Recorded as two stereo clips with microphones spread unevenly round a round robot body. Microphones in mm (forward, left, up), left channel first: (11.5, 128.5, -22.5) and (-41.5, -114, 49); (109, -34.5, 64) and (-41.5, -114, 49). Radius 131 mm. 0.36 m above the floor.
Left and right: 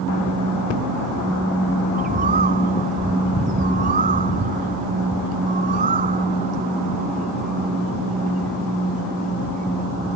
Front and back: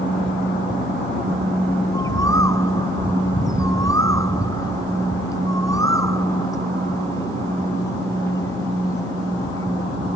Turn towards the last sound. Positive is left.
turn(degrees=-45)